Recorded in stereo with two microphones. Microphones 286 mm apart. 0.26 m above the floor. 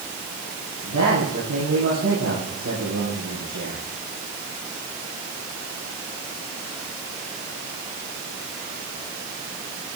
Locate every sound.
0.8 s a man speaking: 80° right, 7 m